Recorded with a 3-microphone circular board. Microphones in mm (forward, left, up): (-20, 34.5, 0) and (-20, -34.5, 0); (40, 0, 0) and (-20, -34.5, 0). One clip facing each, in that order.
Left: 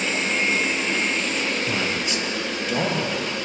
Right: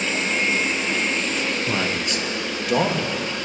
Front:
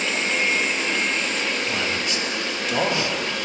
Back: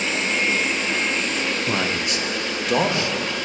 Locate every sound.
1.7 s a man speaking: 140° right, 0.9 m; by 3.2 s 105° right, 1.4 m